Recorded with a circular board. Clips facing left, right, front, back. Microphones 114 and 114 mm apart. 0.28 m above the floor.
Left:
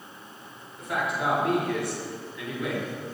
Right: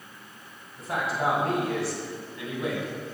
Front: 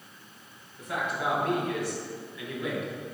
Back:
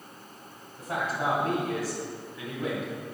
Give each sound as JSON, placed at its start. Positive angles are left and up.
{"t": 0.8, "sound": "a man speaking", "azimuth_deg": -140, "distance_m": 2.5}